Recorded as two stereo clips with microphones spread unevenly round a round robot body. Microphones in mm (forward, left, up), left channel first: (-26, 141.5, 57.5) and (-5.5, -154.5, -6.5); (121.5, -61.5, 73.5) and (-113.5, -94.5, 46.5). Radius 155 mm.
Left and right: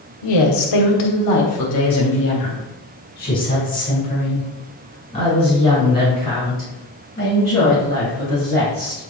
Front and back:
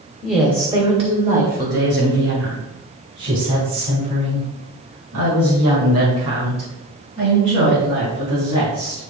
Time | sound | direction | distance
0.2 | a woman speaking | 100° left | 1.8 m